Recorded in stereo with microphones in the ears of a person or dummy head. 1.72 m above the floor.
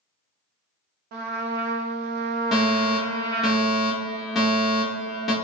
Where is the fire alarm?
Centre (ahead or behind), 0.9 m.